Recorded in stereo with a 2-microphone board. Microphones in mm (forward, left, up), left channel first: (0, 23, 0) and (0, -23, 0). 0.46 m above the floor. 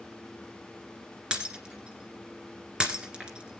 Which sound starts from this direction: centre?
Breaking glass, at 1.3 s.